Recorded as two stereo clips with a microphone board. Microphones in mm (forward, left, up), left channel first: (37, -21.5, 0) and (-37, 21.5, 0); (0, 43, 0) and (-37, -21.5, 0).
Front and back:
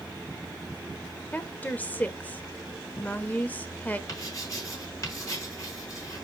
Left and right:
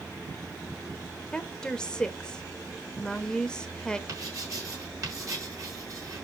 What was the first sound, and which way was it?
A woman speaking, straight ahead.